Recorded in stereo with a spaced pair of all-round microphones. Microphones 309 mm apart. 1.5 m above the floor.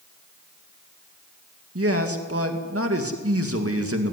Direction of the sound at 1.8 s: 45° right (ahead or behind).